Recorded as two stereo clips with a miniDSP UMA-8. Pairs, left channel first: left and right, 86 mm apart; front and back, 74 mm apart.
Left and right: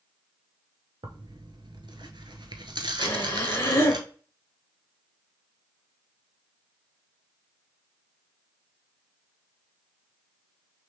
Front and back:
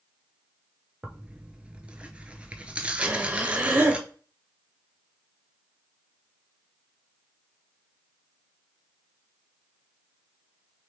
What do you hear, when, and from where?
1.0 s tearing paper: 105° right, 0.7 m
3.0 s breathing: 130° left, 1.6 m